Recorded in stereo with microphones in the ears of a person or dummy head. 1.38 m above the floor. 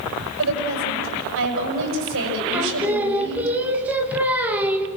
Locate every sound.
0.4 s a woman speaking: 70° right (ahead or behind), 7 m
2.5 s singing: 10° right (ahead or behind), 2 m